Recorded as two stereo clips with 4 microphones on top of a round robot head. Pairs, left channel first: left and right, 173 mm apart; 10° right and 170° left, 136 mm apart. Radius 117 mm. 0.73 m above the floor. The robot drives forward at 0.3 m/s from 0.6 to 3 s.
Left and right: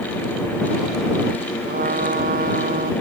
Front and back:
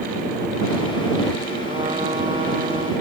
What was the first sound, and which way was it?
A trumpet, 130° right.